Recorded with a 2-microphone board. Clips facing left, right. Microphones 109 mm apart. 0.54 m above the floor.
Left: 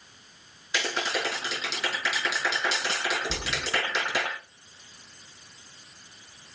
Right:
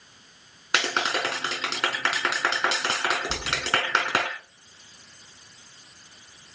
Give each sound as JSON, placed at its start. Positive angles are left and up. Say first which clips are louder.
{"t": 0.7, "sound": "a clap", "louder": "right 3 dB", "side_deg": -70, "distance_m": 5.0}
{"t": 3.3, "sound": "a thud", "louder": "right 2 dB", "side_deg": -5, "distance_m": 9.0}